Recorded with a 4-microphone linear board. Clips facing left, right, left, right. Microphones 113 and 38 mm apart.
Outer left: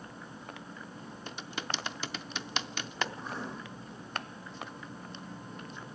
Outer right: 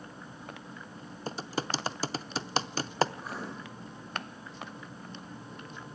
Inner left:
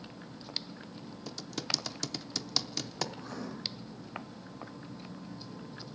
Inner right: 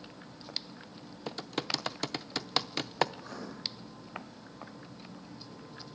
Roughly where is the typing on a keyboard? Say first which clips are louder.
Outer right 6 dB, inner right 3 dB; right.